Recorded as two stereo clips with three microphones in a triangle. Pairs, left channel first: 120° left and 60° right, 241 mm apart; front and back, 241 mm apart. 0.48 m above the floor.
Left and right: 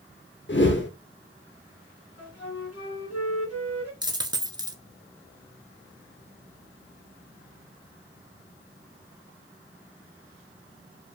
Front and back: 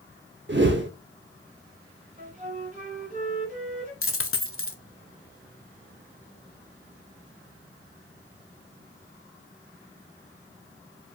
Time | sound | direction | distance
0.5 | a whoosh | 150° left | 0.7 m
2.2 | a flute | 120° left | 1.9 m
4.0 | a dropped coin | 10° left | 0.7 m